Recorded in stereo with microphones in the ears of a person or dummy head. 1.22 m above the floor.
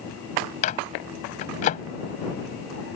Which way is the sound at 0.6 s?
40° left (ahead or behind).